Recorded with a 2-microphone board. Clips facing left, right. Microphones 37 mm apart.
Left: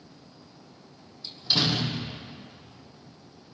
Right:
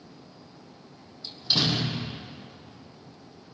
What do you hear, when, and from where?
1.2 s a door slam: centre (ahead or behind), 3 m